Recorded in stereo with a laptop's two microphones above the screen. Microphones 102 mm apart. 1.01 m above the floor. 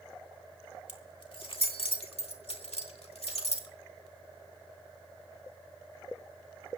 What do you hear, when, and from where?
0.9 s keys jangling: 55° left (ahead or behind), 2.5 m; by 3.7 s 80° left, 2.5 m